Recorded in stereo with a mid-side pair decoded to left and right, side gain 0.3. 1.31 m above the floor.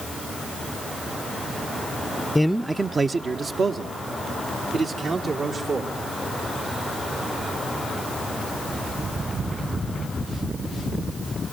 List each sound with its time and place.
2.4 s a man speaking: 15° left, 0.5 m; by 5.9 s 75° right, 4.5 m